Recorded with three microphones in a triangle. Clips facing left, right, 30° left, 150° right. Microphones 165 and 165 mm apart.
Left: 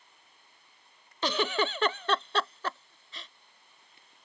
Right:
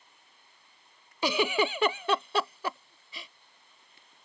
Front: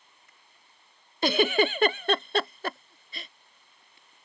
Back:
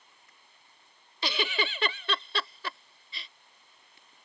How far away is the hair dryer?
No hair dryer in this recording.